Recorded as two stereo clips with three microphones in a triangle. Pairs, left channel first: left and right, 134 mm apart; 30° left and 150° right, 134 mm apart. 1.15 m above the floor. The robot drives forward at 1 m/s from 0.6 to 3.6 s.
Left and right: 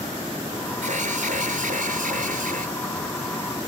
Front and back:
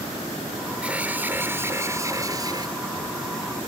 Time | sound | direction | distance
0.8 | an alarm | 70° right | ?